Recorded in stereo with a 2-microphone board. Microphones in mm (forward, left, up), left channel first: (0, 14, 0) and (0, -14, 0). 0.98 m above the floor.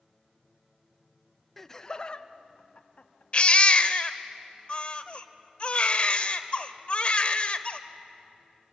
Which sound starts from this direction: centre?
Laughter, at 1.6 s.